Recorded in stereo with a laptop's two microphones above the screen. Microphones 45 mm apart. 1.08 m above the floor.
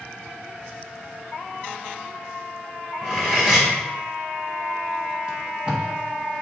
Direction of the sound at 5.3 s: 25° right (ahead or behind).